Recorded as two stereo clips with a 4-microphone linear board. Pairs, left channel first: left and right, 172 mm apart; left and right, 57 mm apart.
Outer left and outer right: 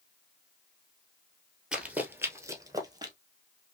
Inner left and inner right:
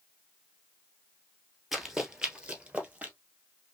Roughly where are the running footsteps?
Centre.